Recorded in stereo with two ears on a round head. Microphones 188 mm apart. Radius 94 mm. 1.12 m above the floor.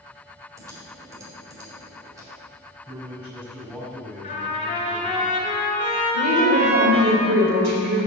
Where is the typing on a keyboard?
15° right (ahead or behind), 4 m.